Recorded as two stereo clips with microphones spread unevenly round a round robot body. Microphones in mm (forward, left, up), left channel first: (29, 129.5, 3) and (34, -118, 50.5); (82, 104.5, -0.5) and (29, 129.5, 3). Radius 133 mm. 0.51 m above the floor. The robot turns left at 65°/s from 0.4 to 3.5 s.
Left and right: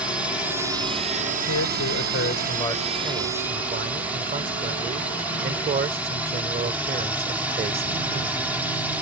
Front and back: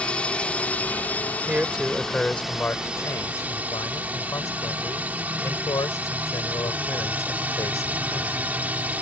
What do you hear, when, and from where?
0.0 s a drone: 15° left; by 9.0 s 170° left
1.5 s a man speaking: 100° left; by 8.6 s 30° right